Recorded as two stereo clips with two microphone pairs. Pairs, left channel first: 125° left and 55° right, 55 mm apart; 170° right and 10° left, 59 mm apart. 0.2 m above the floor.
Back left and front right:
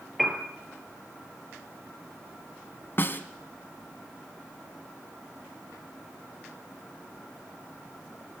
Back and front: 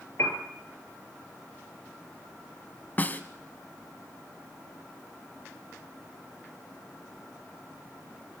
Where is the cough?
I don't hear a cough.